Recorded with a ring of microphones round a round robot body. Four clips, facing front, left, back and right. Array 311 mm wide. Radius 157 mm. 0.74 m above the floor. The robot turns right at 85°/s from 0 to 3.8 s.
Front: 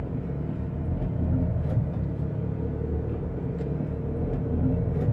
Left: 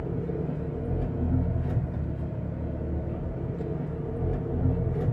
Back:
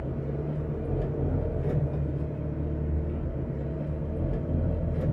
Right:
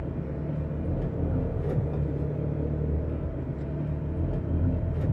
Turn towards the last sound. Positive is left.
turn(degrees=55)